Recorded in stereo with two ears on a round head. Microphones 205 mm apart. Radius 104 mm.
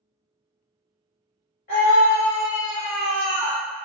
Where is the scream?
40° left (ahead or behind), 1.6 m; by 3.6 s 20° right (ahead or behind), 1.2 m.